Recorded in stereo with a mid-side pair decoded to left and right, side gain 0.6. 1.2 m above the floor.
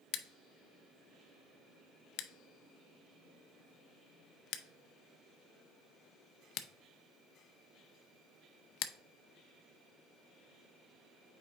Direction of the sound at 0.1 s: 65° left.